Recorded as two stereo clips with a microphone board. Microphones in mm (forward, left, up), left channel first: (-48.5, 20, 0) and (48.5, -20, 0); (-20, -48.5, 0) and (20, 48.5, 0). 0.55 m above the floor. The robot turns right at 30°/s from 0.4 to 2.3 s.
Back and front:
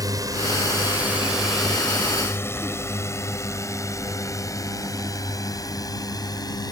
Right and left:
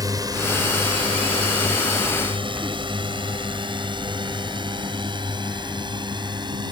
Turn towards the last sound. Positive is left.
turn(degrees=110)